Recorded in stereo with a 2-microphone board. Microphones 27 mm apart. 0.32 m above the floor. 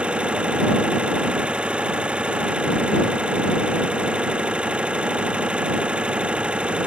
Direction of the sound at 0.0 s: 40° right (ahead or behind).